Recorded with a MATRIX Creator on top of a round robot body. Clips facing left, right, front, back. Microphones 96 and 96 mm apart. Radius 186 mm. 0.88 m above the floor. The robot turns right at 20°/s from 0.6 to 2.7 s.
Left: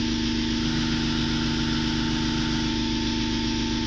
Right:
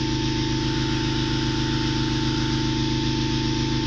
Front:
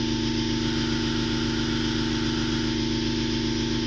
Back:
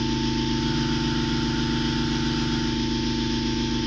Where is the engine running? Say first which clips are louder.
Right 1 dB, back 1 dB; 145° right, 1.5 m; by 3.9 s 100° right, 1.5 m.